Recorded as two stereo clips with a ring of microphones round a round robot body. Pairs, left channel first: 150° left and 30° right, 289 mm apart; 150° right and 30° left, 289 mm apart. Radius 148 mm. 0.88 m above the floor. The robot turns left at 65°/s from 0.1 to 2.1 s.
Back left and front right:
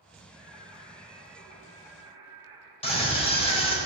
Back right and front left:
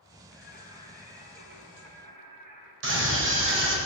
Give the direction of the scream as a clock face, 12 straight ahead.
9 o'clock.